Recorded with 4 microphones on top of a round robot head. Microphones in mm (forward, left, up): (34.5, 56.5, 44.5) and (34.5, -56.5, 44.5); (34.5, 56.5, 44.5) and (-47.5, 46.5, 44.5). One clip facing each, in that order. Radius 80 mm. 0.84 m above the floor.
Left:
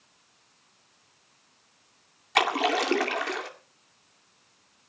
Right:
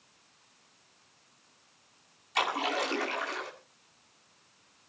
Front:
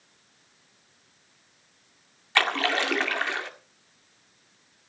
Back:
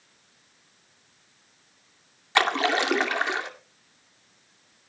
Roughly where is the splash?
Behind left.